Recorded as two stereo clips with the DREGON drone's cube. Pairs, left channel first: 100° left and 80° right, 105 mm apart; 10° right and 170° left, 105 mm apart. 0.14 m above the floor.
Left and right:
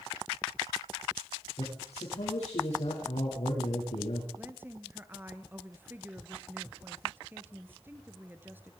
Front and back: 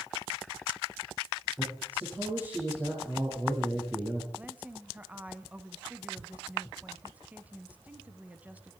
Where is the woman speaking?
130° right, 1.4 m.